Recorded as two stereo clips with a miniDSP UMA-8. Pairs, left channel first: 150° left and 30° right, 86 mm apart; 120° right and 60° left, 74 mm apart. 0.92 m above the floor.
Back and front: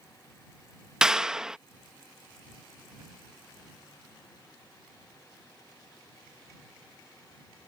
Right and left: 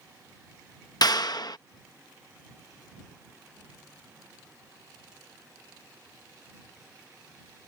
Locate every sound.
1.0 s a clap: 110° right